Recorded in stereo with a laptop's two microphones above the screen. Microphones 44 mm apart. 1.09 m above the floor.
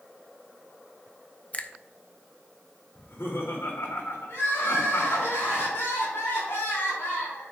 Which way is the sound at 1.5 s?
30° left (ahead or behind).